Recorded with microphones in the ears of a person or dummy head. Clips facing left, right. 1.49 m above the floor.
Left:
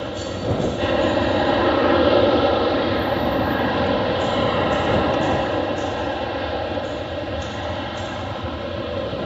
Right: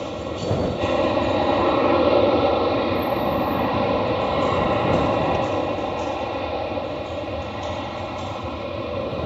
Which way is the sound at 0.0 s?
10° left (ahead or behind).